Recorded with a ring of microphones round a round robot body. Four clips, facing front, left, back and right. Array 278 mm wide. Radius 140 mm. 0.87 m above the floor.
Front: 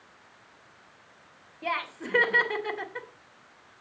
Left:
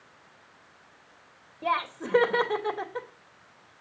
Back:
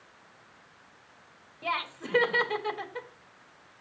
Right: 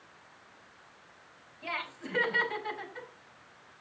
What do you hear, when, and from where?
1.6 s laughter: 80° left, 2 m